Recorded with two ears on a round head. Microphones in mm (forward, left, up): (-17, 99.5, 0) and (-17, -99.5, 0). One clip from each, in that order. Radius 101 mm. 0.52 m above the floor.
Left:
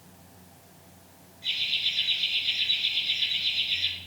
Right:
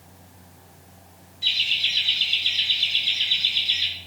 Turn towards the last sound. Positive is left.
turn(degrees=-85)